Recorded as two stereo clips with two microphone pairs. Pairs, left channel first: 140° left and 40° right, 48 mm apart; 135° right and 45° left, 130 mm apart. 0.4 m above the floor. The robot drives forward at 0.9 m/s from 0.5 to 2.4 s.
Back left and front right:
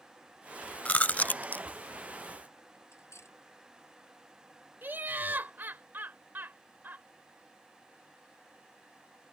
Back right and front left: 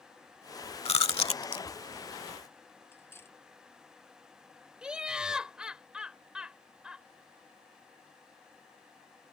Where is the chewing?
170° right; by 1.6 s 175° right.